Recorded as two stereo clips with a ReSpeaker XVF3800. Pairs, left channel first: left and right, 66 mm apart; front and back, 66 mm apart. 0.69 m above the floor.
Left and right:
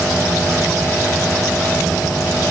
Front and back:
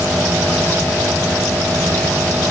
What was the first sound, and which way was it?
Only background noise.